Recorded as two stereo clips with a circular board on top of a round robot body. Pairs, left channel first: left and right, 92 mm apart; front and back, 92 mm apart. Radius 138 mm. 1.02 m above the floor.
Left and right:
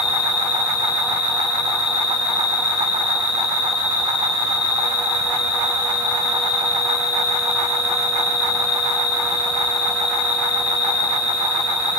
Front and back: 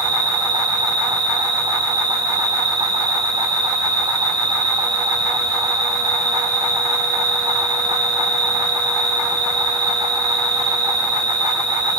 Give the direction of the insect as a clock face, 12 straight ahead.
8 o'clock.